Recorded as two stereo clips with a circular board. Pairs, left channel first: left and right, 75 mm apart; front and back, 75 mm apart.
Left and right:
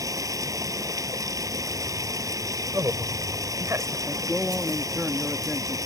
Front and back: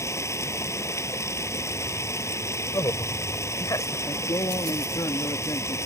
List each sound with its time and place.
0.0 s running water: 50° right
2.7 s a man speaking: 40° right
4.1 s a man speaking: 10° right